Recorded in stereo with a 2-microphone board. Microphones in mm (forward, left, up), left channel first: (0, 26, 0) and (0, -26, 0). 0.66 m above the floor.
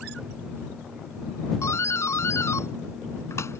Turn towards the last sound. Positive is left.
turn(degrees=65)  # may be behind; listen again after turning